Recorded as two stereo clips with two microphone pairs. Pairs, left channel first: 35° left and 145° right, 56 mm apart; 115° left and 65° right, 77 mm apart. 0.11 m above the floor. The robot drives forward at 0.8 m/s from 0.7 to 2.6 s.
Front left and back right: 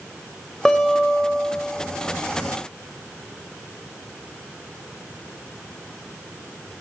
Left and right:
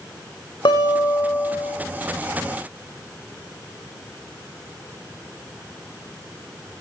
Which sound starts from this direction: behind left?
A guitar, at 0.7 s.